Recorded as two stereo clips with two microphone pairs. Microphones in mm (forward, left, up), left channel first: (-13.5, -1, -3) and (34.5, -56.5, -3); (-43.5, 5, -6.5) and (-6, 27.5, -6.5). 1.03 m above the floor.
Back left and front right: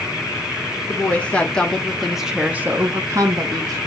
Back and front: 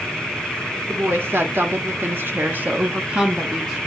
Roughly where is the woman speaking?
Ahead left.